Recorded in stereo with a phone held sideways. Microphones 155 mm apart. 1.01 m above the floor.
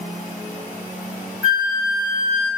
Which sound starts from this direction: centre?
A flute, at 1.4 s.